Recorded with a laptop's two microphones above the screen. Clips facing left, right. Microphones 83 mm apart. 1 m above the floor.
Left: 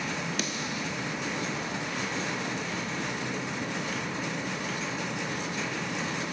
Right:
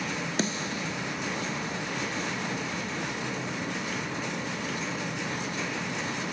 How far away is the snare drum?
About 0.5 m.